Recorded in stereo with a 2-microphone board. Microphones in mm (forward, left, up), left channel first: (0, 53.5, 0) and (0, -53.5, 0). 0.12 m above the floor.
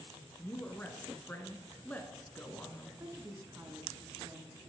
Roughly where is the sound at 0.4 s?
Centre.